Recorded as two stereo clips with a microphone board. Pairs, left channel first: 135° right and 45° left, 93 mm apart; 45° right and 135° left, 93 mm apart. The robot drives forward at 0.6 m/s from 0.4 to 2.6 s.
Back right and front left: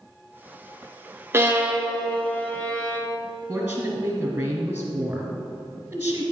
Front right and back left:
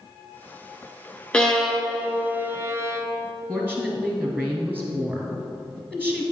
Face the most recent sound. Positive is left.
turn(degrees=90)